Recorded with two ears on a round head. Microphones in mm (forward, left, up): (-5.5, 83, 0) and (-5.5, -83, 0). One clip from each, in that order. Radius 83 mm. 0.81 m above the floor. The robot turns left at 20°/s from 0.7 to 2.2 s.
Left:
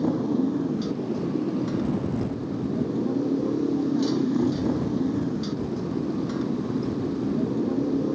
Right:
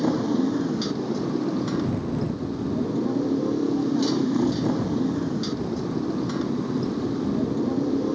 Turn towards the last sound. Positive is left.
turn(degrees=-155)